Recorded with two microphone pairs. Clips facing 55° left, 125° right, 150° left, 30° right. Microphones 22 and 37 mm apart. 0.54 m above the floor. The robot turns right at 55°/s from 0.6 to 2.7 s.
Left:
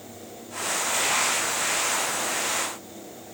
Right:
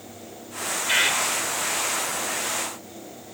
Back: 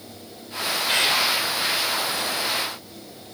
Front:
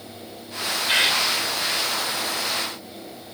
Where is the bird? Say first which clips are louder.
Right 5 dB, front 2 dB; 105° right, 1.8 m; by 1.2 s 90° right, 1.8 m.